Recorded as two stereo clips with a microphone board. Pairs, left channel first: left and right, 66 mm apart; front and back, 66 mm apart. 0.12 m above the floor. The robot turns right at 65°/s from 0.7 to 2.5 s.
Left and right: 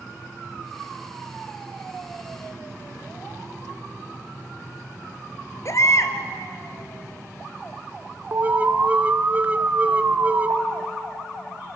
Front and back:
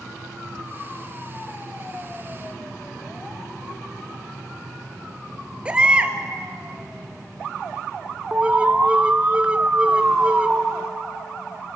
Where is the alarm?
125° right, 0.9 m.